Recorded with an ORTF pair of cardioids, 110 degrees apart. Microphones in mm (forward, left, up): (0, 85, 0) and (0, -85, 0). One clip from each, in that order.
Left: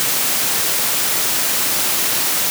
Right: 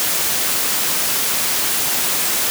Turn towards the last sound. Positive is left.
No sound to turn to.